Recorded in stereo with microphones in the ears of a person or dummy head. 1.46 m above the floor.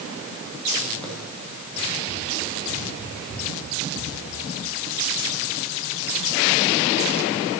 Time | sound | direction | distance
1.0 | running footsteps | 5° left (ahead or behind) | 3 m